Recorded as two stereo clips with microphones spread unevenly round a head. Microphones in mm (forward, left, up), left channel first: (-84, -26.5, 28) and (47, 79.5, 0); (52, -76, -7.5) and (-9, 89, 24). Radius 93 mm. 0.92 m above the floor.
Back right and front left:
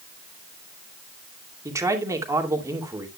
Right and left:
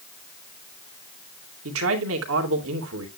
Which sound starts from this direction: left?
A man speaking, at 1.6 s.